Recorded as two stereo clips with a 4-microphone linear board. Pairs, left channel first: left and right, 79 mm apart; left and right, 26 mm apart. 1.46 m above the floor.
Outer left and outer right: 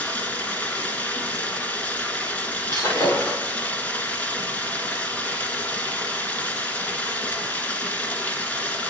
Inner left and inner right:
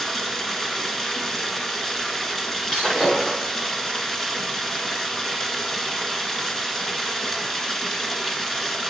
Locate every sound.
0.0 s running water: 20° left (ahead or behind), 1.5 m
2.7 s breaking glass: 35° left (ahead or behind), 5.5 m